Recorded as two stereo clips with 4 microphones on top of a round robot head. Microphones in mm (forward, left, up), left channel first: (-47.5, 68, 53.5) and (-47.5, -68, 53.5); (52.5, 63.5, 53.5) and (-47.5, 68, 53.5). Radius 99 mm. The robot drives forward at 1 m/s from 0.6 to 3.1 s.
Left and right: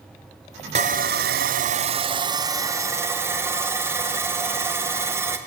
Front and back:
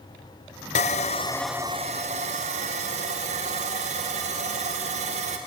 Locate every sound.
0.8 s sawing: 35° right, 0.9 m; by 5.4 s 165° right, 1.8 m